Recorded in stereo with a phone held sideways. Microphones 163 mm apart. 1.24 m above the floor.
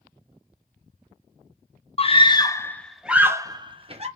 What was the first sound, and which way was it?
A scream, 40° left (ahead or behind).